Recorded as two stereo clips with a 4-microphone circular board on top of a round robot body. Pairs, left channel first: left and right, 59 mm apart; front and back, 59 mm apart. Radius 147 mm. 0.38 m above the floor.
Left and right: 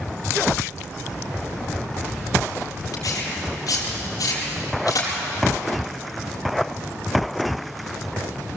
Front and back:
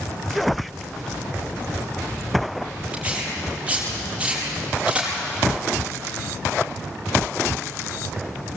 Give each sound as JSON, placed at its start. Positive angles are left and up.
{"t": 2.9, "sound": "tearing paper", "azimuth_deg": 110, "distance_m": 5.0}